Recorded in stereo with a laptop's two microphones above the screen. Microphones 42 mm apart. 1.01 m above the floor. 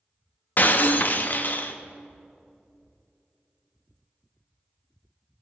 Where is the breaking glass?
45° left (ahead or behind), 0.6 m.